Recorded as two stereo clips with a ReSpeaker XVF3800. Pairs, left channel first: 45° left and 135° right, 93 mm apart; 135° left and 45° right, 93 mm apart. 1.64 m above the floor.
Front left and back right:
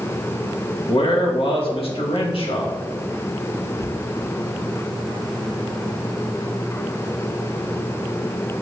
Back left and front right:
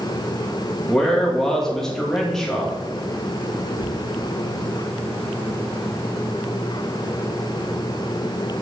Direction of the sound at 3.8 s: Straight ahead.